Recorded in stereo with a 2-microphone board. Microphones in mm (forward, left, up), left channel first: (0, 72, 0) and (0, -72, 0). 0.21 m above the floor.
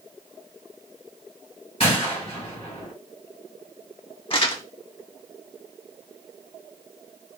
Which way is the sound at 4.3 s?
40° left (ahead or behind).